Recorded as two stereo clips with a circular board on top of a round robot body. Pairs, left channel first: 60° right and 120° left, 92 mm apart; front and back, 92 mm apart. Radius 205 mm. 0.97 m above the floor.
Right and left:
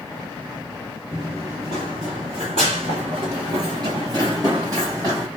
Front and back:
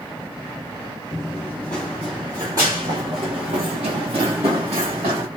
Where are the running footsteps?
55° left, 1.2 m; by 5.3 s 175° left, 2 m.